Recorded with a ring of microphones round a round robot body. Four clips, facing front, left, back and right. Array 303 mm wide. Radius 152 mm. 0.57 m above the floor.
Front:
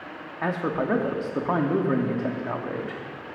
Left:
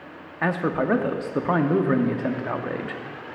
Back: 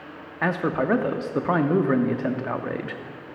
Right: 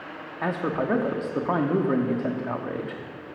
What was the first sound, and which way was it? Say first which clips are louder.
A man speaking: left 3 dB, back 2 dB; 140° left.